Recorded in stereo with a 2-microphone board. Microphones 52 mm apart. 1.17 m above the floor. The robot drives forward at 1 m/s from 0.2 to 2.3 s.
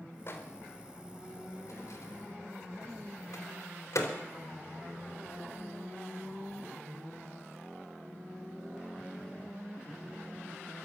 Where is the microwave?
50° left (ahead or behind), 4 m; by 4.1 s 80° left, 3 m.